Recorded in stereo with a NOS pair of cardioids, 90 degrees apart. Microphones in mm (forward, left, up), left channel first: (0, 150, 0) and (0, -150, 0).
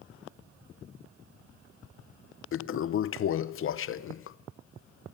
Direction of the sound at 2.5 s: 45° left.